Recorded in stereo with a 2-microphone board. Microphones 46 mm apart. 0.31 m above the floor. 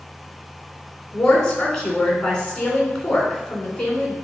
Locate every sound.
1.1 s a woman speaking: 15° left (ahead or behind), 3 m